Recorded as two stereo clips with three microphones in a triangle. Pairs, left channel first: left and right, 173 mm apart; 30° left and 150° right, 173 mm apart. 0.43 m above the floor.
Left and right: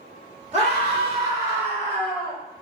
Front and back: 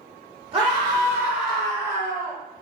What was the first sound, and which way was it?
A scream, 110° right.